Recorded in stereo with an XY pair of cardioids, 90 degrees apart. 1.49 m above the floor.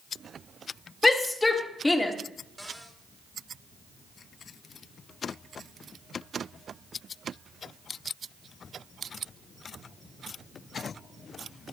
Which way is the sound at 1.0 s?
25° left.